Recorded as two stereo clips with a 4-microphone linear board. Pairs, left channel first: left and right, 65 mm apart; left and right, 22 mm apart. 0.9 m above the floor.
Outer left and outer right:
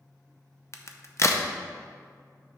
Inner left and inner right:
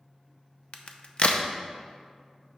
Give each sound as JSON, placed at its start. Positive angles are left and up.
{"t": 0.7, "sound": "a crack", "side_deg": 45, "distance_m": 0.6}